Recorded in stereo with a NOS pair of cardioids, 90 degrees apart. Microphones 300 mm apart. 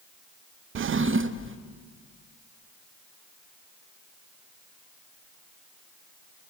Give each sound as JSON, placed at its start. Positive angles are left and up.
{"t": 0.8, "sound": "a drawer", "azimuth_deg": -45, "distance_m": 0.8}